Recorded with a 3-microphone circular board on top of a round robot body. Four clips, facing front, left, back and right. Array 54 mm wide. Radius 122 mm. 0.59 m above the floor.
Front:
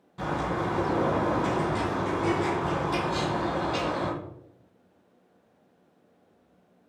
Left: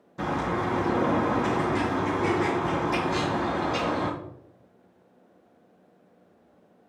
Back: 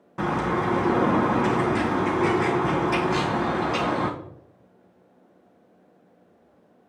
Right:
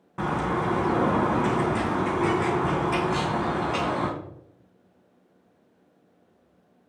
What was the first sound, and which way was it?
A bird, 135° right.